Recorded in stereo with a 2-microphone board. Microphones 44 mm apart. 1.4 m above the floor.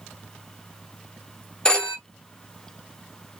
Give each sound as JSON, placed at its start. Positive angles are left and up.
{"t": 1.6, "sound": "a phone ringing", "side_deg": 20, "distance_m": 0.6}